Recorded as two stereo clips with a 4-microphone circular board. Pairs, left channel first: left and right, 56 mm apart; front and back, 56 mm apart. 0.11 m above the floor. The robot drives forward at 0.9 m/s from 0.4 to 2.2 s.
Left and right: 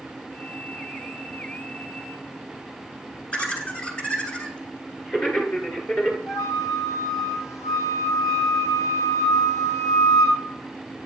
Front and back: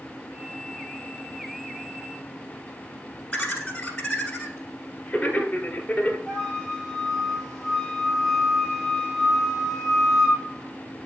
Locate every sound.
3.3 s laughter: 55° left, 1.4 m
6.3 s a flute: 90° left, 4 m